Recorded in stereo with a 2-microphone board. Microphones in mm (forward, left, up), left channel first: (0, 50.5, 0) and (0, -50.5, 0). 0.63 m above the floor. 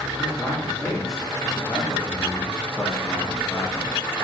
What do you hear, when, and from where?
0.2 s a man speaking: centre (ahead or behind), 2 m; by 4.0 s 40° left (ahead or behind), 1.3 m